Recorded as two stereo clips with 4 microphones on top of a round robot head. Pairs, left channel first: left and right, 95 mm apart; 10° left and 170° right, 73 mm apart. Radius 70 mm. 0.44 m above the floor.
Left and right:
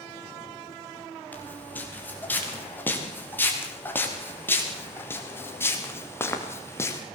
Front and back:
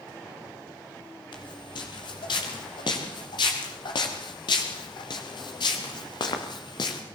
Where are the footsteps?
20° left, 8 m; by 7.0 s 30° left, 5 m.